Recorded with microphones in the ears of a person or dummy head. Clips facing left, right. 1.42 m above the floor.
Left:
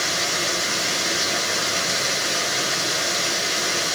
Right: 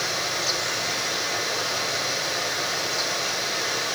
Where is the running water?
45° left (ahead or behind), 3 m.